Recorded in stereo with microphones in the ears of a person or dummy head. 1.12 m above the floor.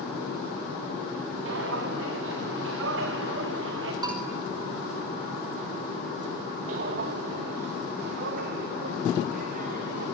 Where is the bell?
20° right (ahead or behind), 3 m.